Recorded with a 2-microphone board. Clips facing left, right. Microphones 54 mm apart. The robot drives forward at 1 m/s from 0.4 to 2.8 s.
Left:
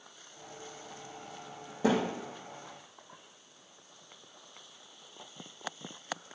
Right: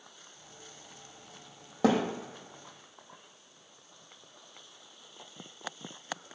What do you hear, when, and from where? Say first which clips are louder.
1.8 s a thud: right 2 dB; 65° right (ahead or behind), 2.5 m; by 2.0 s 70° right (ahead or behind), 2.5 m